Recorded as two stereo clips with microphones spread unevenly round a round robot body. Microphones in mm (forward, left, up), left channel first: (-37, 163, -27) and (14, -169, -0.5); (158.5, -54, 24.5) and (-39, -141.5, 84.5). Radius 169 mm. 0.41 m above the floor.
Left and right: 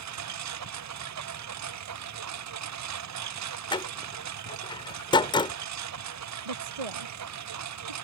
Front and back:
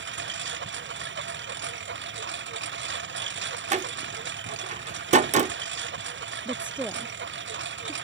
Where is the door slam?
150° left.